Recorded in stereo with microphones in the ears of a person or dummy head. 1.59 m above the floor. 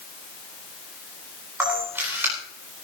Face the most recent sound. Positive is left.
turn(degrees=-15)  # may be behind; listen again after turning